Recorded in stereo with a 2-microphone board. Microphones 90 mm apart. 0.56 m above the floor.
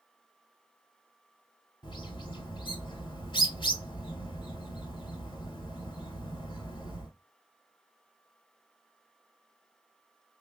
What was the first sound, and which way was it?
A bird, 55° left (ahead or behind).